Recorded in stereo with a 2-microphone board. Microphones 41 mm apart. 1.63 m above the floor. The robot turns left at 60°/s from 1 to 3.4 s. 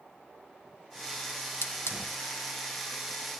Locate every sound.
1.6 s a hiss: 60° left (ahead or behind), 1.6 m; by 2.1 s 85° left, 1.6 m